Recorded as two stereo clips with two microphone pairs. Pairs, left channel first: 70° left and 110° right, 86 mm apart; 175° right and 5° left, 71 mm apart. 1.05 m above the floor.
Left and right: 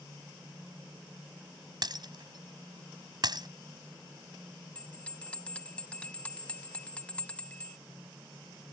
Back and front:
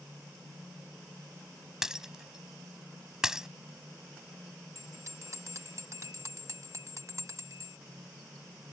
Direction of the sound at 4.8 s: Straight ahead.